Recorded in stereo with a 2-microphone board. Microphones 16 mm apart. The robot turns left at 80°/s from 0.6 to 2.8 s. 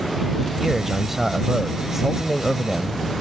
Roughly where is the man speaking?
Centre.